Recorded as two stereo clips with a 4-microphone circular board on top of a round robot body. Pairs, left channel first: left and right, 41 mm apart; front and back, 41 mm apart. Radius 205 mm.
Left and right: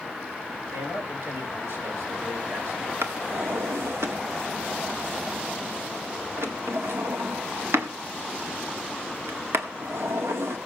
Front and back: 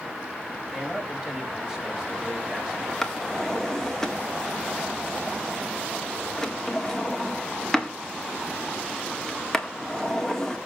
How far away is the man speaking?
About 8.5 m.